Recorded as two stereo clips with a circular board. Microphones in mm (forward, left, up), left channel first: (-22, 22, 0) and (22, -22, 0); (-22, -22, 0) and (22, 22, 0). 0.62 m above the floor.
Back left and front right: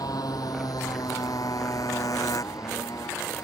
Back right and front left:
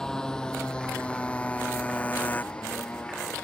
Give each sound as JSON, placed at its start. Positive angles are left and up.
{"t": 0.0, "sound": "a motorcycle", "azimuth_deg": 145}